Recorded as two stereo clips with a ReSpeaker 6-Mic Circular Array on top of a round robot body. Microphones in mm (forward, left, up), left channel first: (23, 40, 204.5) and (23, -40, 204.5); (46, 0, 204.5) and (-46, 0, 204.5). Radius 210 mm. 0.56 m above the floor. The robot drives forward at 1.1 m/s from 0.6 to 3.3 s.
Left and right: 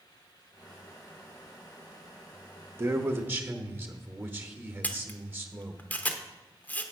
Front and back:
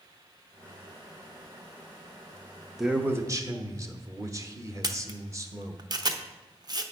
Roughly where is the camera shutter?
Behind left.